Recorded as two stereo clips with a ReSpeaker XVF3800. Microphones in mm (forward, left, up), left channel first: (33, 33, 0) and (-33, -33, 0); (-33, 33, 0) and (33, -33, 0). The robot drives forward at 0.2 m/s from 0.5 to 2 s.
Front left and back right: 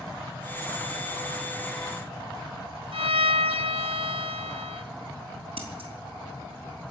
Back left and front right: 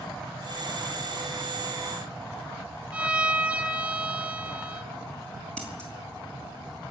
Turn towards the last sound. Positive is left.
turn(degrees=-145)